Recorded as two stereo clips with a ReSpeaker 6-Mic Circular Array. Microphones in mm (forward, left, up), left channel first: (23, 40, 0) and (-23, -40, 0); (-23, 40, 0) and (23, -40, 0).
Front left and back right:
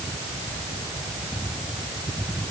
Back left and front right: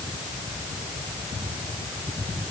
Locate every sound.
Only background noise.